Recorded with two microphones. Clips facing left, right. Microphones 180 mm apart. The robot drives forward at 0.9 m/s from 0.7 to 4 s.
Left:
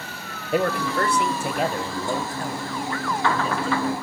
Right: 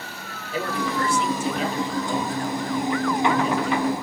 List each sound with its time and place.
0.5 s a man speaking: 65° left (ahead or behind), 1.8 m; by 3.9 s 30° left (ahead or behind), 3.5 m